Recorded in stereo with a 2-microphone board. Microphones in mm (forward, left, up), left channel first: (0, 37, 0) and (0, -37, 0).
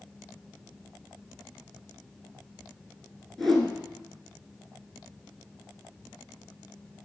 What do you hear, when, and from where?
3.4 s a whoosh: 5° left (ahead or behind), 2.0 m